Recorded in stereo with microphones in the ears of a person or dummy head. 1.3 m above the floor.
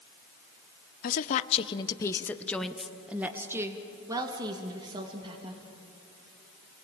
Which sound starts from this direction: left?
A woman speaking, at 1.0 s.